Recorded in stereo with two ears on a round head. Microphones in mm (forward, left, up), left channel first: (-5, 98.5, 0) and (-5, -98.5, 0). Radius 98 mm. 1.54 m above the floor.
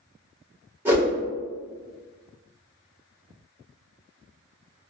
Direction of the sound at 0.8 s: 10° right (ahead or behind).